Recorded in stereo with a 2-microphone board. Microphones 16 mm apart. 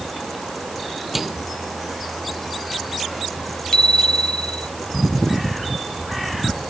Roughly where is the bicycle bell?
Left.